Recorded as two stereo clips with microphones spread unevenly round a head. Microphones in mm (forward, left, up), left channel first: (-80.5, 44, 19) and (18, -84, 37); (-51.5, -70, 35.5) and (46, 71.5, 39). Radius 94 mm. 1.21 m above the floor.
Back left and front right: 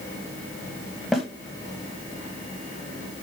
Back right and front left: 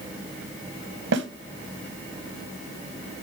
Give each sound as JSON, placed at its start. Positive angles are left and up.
{"t": 1.1, "sound": "a snare drum", "azimuth_deg": 40, "distance_m": 1.2}